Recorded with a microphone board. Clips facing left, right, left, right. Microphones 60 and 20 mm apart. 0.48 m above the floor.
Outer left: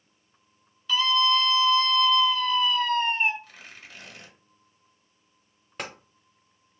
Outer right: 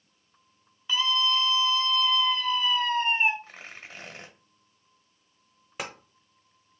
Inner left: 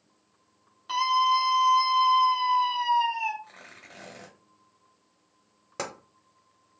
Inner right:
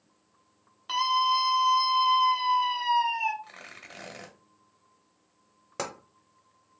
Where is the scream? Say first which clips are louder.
Outer left 3 dB, inner left 2 dB; 20° right (ahead or behind), 1.3 m.